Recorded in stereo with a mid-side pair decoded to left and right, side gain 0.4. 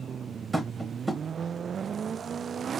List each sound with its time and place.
0.5 s tapping: 20° right, 1.3 m